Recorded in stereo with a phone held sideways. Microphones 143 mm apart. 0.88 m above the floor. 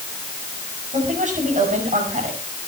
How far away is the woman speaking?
About 7.5 m.